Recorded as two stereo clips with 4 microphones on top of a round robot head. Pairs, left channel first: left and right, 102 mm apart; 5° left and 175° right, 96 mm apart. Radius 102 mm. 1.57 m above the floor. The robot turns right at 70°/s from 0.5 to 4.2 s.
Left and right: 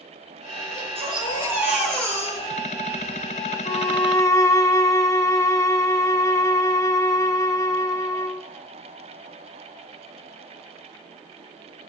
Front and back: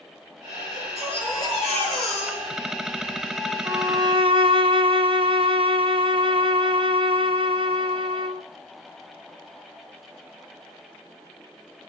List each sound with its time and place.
0.7 s a baby crying: 75° right, 8.5 m; by 3.1 s 90° left, 8.5 m
3.6 s a violin: 115° left, 0.8 m; by 8.4 s 155° left, 0.8 m